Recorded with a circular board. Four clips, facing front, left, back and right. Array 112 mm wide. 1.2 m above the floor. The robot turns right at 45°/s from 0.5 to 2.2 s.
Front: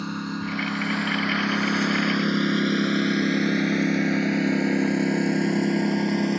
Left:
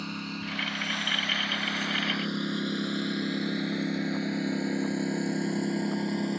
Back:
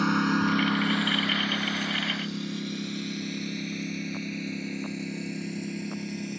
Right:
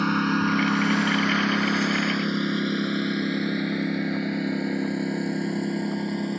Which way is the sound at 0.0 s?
120° right.